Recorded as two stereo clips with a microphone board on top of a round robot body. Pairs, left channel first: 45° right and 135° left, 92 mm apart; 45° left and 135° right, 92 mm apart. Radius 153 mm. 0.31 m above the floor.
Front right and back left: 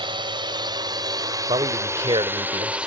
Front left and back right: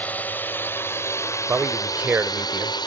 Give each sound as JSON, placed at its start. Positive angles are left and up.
{"t": 0.0, "sound": "a drone", "azimuth_deg": 115}
{"t": 1.5, "sound": "a man speaking", "azimuth_deg": 155}